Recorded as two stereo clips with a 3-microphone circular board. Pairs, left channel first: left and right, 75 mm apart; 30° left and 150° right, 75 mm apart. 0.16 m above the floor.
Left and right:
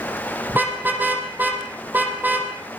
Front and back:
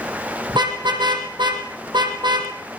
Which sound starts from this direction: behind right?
A car horn, at 0.5 s.